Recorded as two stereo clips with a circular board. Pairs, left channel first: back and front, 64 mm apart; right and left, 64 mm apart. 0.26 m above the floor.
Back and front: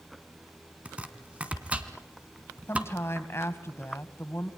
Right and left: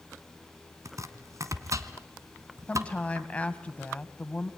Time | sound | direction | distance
0.8 | chopping | 70° left | 2 m
2.7 | a woman speaking | 155° right | 2 m